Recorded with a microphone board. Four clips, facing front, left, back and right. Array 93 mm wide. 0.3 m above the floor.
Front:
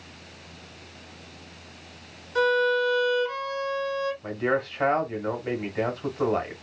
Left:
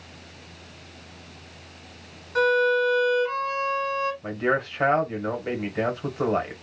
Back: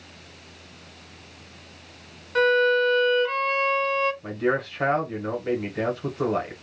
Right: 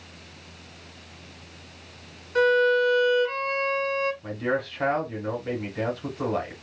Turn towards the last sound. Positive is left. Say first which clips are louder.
# left 3 dB, back 1 dB
turn(degrees=85)